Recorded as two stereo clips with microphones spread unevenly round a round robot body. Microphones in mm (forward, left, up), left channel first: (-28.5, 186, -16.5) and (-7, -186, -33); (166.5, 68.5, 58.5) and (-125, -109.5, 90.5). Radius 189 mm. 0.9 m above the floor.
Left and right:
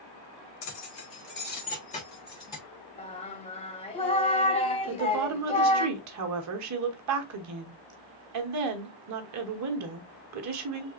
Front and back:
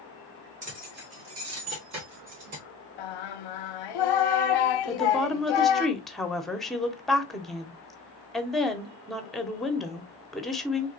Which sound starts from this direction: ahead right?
A woman speaking, at 4.9 s.